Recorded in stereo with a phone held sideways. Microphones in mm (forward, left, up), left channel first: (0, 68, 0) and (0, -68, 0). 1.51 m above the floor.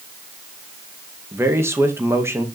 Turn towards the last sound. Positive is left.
turn(degrees=-20)  # may be behind; listen again after turning